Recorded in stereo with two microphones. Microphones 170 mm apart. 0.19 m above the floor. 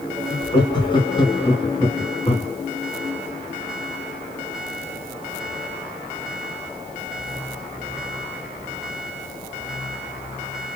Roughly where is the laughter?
Left.